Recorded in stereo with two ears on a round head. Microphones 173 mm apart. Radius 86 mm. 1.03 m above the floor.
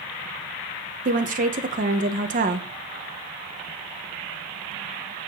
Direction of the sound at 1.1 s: 45° right (ahead or behind).